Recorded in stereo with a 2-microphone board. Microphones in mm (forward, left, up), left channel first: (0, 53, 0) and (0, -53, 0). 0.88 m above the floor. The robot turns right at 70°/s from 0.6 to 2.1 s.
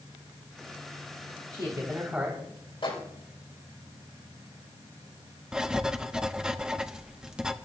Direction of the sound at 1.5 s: 60° right.